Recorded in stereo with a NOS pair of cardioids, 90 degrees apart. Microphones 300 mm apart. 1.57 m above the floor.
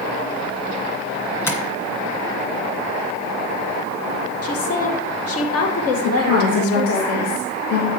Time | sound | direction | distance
1.5 | tapping | 10° left | 2.0 m
4.4 | a woman speaking | 50° left | 2 m
6.0 | a woman speaking | 55° left | 3 m